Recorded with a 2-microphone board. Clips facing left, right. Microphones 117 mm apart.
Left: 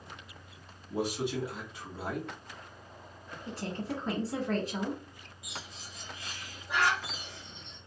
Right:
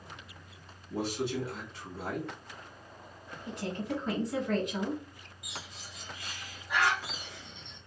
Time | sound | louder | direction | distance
0.9 | a man speaking | left 1 dB | 15° left (ahead or behind) | 1.0 m
3.5 | a woman speaking | right 1 dB | 35° left (ahead or behind) | 1.4 m
5.4 | a bird | even | 30° left (ahead or behind) | 1.4 m